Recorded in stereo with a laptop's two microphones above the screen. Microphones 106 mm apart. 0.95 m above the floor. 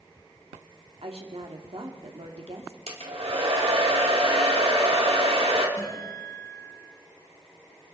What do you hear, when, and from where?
1.0 s a woman speaking: 75° right (ahead or behind), 2.5 m
2.9 s a hair dryer: 80° right, 2.5 m
5.8 s a guitar: 40° left (ahead or behind), 8.5 m